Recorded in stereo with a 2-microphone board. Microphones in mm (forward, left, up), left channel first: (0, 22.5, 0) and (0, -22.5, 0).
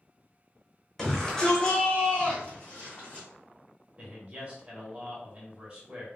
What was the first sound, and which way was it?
A shout, 5° left (ahead or behind).